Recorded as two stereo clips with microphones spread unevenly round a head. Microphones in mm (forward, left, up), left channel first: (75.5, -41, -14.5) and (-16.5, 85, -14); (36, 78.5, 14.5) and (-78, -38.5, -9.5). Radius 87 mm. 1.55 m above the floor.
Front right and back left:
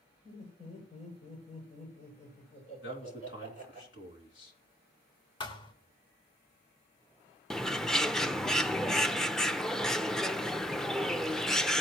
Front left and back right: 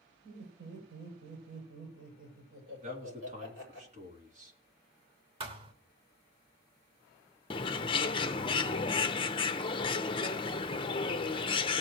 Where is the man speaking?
80° right, 3.5 m.